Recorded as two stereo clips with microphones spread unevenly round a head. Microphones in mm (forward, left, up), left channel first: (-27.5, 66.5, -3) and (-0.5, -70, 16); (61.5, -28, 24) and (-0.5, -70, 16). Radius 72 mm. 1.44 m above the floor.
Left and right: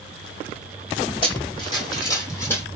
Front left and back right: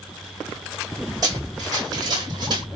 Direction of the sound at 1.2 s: 150° left.